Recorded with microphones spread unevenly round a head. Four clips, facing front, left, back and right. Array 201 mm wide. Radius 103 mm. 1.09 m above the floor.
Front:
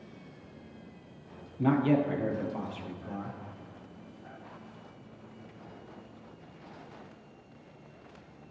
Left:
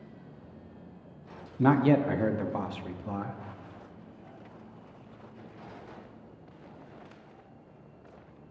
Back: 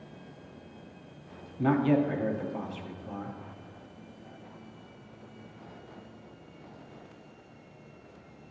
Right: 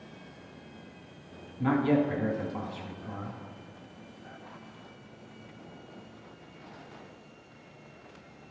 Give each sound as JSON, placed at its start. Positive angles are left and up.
{"t": 1.6, "sound": "a man speaking", "azimuth_deg": 120, "distance_m": 0.6}